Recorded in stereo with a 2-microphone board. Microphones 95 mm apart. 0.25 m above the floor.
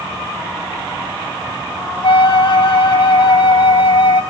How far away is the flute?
About 0.7 m.